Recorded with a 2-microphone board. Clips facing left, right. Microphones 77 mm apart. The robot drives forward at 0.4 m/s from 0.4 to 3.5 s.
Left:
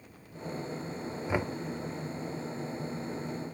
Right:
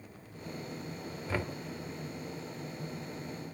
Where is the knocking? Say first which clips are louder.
Left 4 dB; 20° left (ahead or behind), 0.7 m; by 1.5 s 15° left (ahead or behind), 0.7 m.